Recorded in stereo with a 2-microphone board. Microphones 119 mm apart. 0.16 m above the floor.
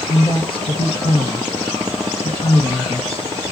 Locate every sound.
0.1 s a woman speaking: 45° left (ahead or behind), 1.9 m